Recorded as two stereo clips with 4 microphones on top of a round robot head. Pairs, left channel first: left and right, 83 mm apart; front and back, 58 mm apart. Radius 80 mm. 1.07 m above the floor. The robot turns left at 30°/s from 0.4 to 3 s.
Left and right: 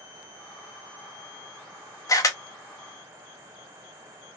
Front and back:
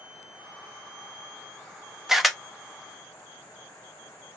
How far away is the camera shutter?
About 0.9 m.